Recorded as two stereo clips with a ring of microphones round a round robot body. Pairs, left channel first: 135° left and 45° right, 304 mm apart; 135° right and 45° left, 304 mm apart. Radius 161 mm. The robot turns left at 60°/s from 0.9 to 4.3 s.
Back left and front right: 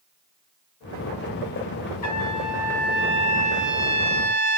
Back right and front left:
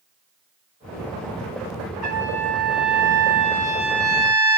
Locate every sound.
2.0 s a trumpet: 100° left, 3 m; by 4.6 s 35° right, 3 m